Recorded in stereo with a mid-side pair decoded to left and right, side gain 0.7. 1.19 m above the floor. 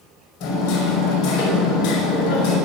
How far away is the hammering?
About 5.5 m.